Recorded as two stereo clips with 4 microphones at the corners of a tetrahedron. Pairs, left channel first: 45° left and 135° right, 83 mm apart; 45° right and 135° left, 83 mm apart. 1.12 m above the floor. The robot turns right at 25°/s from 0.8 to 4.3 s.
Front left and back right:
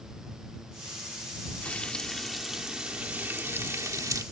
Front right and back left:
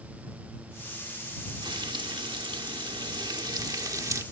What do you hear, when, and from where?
1.6 s frying: 120° left; by 4.2 s 175° right